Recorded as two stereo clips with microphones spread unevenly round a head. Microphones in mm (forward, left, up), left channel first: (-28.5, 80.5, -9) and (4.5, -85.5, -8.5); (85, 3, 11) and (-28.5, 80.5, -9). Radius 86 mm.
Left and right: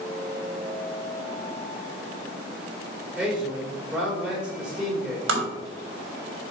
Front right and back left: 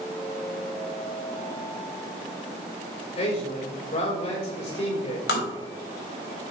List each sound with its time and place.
3.1 s a man speaking: 5° left, 4 m
5.3 s tapping: 60° right, 3.5 m